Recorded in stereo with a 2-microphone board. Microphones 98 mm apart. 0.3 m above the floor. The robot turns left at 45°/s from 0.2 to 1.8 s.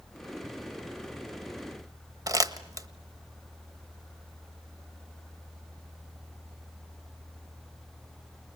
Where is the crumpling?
35° right (ahead or behind), 1.4 m.